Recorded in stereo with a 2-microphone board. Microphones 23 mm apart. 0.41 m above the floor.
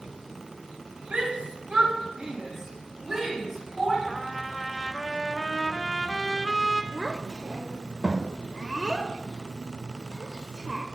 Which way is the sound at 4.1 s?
5° right (ahead or behind).